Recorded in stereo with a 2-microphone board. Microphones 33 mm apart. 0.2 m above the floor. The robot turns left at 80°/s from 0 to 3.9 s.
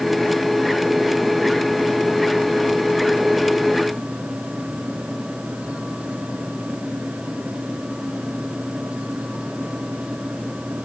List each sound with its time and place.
Only background noise.